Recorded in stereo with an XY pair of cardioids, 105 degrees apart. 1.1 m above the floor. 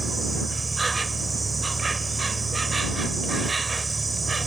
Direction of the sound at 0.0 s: 25° right.